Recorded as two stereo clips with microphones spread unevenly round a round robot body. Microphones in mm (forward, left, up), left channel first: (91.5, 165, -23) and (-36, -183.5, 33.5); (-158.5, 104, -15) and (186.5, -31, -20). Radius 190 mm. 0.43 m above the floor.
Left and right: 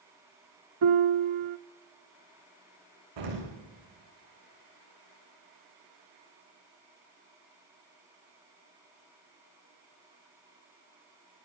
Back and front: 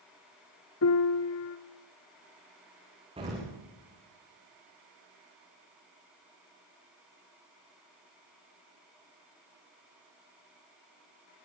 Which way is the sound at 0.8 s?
145° right.